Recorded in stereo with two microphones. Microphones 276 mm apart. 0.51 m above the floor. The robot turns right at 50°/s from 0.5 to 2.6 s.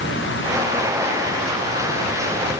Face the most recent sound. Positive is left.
No sound to turn to.